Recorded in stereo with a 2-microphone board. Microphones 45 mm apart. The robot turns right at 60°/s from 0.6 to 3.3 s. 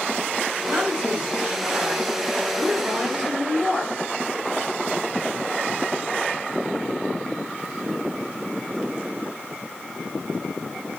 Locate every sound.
0.7 s a woman speaking: 145° right, 1.6 m; by 3.9 s 15° left, 1.6 m